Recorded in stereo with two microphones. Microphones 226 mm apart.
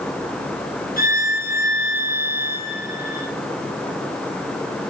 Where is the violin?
40° left (ahead or behind), 3.5 m.